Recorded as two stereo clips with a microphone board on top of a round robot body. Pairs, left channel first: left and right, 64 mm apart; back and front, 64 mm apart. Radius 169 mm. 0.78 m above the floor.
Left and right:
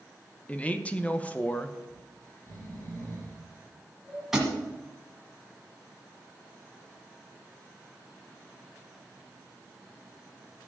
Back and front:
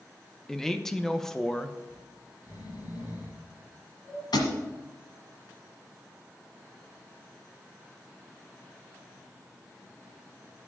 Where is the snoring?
145° left, 3.5 m.